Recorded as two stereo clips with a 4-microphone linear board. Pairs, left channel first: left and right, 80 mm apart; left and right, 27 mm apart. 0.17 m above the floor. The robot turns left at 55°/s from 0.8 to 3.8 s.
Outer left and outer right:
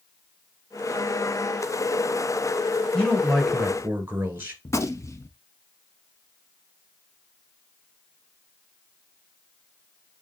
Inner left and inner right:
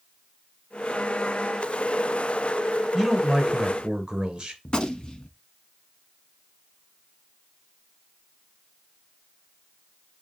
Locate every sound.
2.9 s a man speaking: 20° left, 2.5 m; by 4.5 s 30° right, 2.5 m
4.7 s a gunshot: 35° left (ahead or behind), 0.9 m